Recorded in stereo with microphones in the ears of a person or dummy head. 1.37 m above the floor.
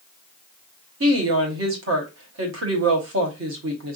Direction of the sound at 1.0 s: 60° right (ahead or behind).